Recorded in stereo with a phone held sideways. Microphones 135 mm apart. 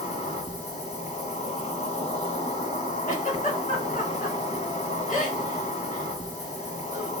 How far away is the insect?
About 1.3 m.